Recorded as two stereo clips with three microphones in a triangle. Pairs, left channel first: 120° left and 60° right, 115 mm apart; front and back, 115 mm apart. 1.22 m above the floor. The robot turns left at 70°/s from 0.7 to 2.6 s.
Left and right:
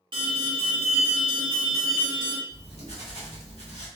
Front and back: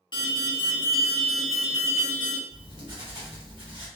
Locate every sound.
0.1 s an alarm: 35° right, 1.1 m; by 2.4 s 150° right, 1.1 m
2.5 s writing: 145° left, 1.1 m; by 3.9 s 135° left, 1.1 m